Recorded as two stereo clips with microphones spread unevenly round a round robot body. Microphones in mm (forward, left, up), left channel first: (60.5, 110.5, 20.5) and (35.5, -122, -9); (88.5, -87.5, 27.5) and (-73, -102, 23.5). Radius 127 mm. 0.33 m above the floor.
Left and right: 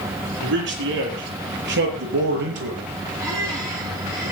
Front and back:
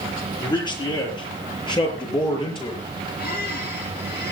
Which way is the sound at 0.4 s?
60° right.